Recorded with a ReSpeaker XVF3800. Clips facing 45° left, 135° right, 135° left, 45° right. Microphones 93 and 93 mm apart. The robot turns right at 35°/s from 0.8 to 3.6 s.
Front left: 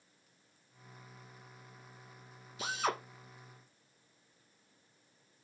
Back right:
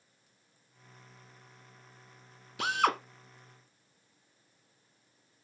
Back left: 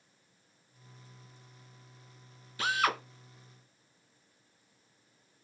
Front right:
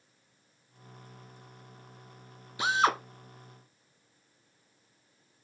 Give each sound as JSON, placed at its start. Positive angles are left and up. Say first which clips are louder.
{"t": 2.6, "sound": "a drill", "louder": "back right 7 dB, front right 4 dB", "azimuth_deg": -120, "distance_m": 1.2}